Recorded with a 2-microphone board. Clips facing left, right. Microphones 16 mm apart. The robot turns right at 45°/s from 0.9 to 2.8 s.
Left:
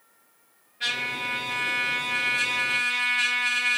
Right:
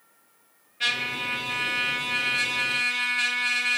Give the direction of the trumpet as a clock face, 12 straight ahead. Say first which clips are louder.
Right 1 dB; 3 o'clock.